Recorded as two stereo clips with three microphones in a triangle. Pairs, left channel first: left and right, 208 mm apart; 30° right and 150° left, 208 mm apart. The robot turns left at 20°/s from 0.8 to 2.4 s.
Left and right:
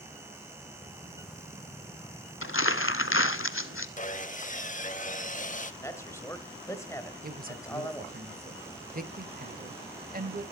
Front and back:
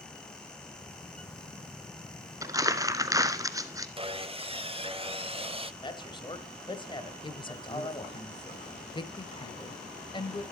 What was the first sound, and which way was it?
Crumpling, 75° left.